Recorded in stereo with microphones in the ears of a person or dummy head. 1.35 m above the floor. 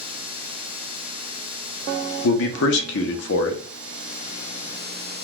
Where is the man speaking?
60° left (ahead or behind), 0.7 m.